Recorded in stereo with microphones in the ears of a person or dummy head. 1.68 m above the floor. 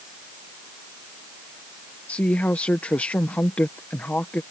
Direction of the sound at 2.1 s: 5° left (ahead or behind).